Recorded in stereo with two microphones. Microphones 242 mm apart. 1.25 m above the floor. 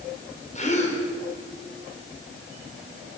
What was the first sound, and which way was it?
A gasp, 30° left (ahead or behind).